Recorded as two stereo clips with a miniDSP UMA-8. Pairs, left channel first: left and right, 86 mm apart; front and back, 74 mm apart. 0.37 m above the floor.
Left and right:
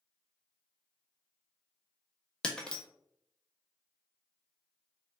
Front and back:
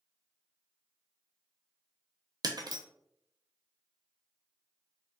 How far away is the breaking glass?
About 0.7 m.